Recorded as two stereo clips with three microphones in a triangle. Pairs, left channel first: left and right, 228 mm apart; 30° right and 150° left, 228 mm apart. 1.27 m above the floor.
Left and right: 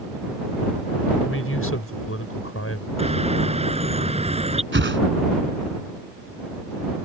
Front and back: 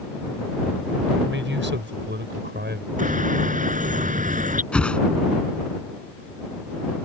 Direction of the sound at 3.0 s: 155° right.